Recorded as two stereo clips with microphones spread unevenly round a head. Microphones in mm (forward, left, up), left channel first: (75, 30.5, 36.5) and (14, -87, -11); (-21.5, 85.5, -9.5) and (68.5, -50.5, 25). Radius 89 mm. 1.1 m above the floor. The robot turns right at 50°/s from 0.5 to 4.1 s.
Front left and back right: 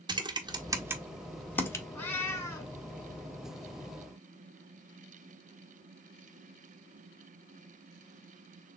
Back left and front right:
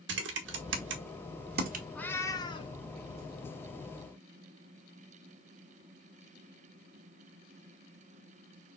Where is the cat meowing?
30° left, 1.2 m; by 2.7 s 70° left, 1.2 m.